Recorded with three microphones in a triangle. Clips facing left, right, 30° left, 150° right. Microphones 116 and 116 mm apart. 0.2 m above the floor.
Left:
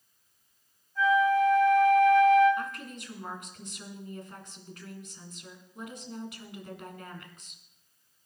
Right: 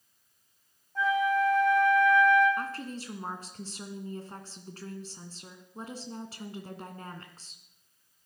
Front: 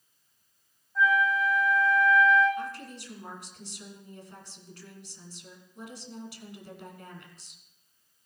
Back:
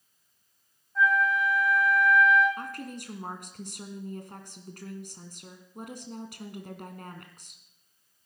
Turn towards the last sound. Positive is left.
turn(degrees=-140)